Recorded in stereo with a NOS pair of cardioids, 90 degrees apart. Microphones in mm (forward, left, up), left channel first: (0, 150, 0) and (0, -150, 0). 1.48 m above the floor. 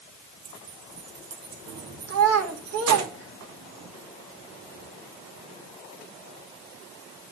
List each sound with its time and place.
0.5 s keys jangling: 65° right, 1.3 m
2.1 s a child speaking: 55° right, 2 m